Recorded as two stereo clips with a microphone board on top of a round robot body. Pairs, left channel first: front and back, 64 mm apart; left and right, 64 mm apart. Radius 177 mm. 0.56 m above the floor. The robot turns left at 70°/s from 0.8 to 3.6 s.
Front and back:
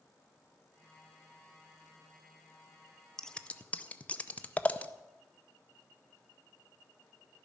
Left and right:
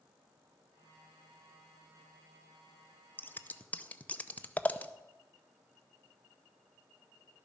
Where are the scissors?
75° left, 0.8 m; by 4.9 s 45° left, 0.8 m.